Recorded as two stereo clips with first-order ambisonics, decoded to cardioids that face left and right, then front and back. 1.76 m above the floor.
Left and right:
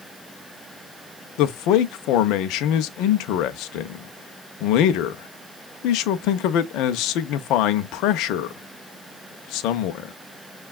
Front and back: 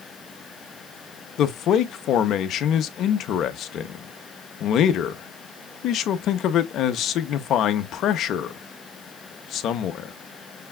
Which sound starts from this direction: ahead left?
A man speaking, at 1.4 s.